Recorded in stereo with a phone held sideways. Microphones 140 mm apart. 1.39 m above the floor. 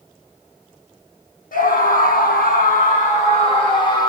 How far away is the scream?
About 1.0 m.